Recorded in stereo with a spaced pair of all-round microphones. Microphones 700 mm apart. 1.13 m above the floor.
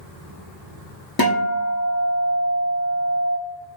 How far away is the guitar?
About 0.9 m.